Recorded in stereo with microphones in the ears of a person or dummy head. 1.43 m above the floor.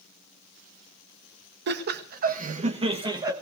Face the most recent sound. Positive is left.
turn(degrees=-20)  # may be behind; listen again after turning